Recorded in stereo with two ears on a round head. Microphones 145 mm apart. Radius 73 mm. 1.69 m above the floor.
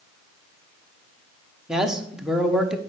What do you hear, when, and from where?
1.7 s a man speaking: 5° right (ahead or behind), 1.2 m